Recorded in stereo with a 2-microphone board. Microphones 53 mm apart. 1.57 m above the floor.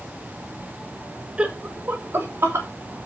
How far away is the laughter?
About 1.0 m.